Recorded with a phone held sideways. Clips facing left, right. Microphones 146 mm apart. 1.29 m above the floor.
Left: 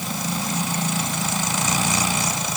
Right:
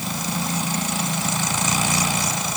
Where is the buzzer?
No buzzer in this recording.